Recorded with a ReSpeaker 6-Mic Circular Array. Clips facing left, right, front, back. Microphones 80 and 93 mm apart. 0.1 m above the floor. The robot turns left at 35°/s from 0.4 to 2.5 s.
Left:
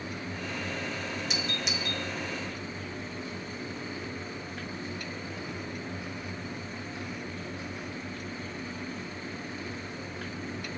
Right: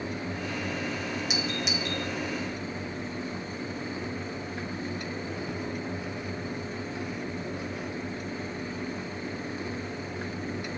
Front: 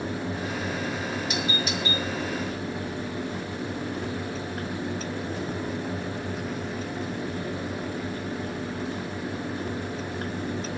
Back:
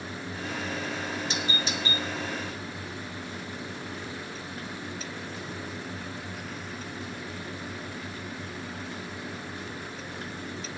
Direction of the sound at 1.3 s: 165° right.